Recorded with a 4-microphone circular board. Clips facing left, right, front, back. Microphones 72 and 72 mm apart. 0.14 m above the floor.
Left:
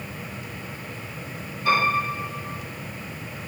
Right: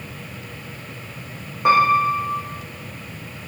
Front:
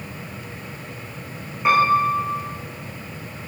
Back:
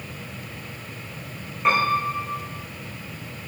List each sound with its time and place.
1.6 s a piano: 85° right, 4.5 m